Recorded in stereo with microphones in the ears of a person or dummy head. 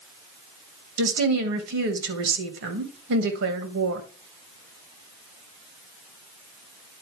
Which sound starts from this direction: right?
A woman speaking, at 1.0 s.